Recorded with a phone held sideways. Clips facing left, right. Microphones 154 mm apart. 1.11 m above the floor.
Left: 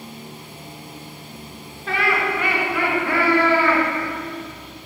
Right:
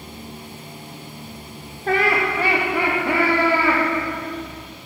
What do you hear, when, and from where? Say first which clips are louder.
1.9 s laughter: right 3 dB; 45° right (ahead or behind), 1.4 m; by 3.8 s 10° right (ahead or behind), 2.5 m